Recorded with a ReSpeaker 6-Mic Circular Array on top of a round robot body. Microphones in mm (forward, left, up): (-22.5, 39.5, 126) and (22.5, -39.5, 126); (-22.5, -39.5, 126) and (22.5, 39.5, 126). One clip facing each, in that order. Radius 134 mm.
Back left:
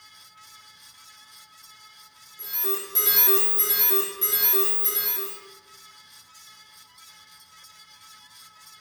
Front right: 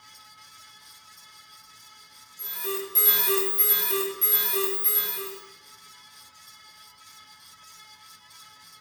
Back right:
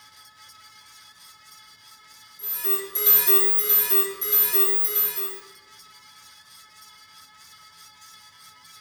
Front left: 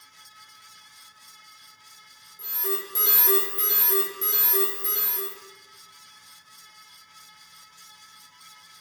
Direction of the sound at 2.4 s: 70° left.